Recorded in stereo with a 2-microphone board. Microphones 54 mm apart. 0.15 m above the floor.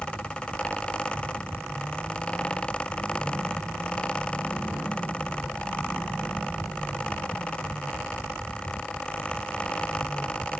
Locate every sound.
Only background noise.